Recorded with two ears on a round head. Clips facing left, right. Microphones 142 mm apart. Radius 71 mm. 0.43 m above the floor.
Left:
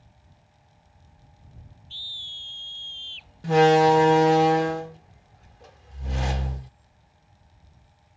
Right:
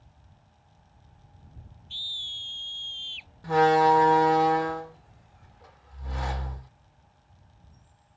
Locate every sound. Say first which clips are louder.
1.9 s a scream: even; 20° right (ahead or behind)
3.4 s a door slam: left 3 dB; 30° left (ahead or behind)